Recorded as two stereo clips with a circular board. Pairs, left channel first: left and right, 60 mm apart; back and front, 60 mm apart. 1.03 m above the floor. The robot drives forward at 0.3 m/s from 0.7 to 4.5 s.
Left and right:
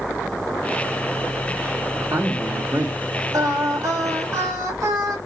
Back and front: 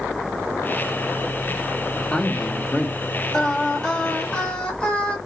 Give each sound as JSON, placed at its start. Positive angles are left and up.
{"t": 1.9, "sound": "a man speaking", "azimuth_deg": -100, "distance_m": 1.7}
{"t": 3.3, "sound": "singing", "azimuth_deg": -100, "distance_m": 1.9}